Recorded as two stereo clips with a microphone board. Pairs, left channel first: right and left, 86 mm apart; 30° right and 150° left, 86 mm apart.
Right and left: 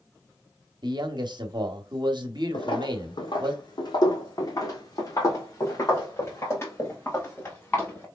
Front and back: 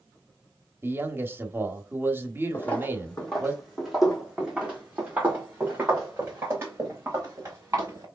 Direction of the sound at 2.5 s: 100° right.